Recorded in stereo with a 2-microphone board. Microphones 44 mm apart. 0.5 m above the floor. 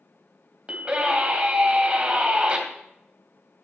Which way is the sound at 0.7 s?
30° right (ahead or behind).